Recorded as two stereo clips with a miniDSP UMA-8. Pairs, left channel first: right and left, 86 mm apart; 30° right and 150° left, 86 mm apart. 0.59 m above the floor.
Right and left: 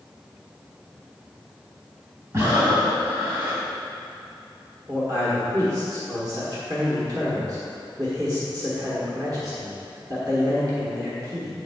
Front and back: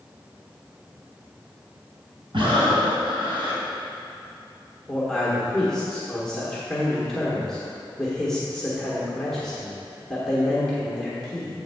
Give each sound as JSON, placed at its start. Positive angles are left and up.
{"t": 2.3, "sound": "breathing", "azimuth_deg": 135, "distance_m": 2.5}
{"t": 4.9, "sound": "a man speaking", "azimuth_deg": 55, "distance_m": 1.3}